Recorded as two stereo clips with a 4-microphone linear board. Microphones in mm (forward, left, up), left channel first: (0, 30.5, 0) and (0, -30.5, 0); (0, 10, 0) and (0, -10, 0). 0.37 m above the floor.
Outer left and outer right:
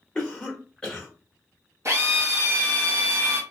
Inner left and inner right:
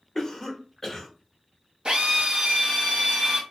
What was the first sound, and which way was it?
A cough, 10° left (ahead or behind).